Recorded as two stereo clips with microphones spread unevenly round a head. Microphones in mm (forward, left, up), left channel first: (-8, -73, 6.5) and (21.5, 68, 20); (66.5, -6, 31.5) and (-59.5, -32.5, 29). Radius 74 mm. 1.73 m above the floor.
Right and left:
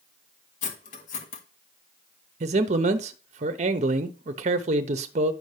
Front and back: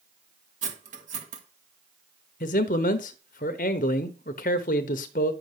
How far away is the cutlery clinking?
About 1.7 m.